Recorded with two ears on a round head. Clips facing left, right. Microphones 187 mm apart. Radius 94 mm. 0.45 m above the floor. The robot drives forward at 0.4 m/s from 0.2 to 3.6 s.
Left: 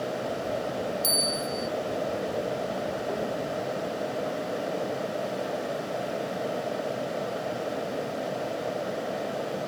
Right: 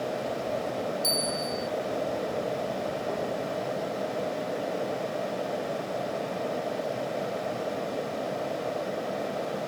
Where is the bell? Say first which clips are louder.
Even; 15° left (ahead or behind); by 1.7 s 10° left (ahead or behind).